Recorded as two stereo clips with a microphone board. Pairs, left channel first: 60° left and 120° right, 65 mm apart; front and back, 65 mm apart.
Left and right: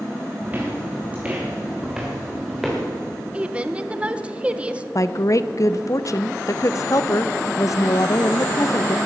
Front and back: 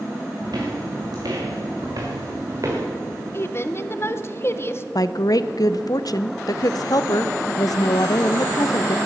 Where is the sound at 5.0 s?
25° left, 0.6 m.